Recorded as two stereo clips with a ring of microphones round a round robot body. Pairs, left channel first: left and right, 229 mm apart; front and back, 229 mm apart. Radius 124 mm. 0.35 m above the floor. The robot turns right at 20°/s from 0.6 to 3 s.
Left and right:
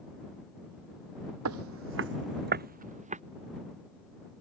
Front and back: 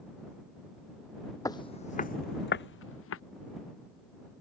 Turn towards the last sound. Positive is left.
turn(degrees=-30)